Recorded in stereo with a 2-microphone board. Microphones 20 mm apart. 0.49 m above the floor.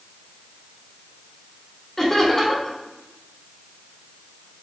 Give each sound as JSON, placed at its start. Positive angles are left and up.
{"t": 2.0, "sound": "laughter", "side_deg": 15, "distance_m": 1.4}